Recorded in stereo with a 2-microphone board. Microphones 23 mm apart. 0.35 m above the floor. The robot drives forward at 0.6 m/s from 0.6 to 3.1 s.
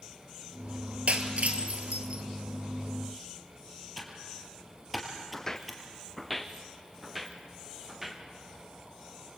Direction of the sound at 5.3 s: 25° left (ahead or behind).